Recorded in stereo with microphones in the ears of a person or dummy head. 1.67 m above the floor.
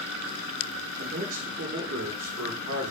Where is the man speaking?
80° right, 6.5 m.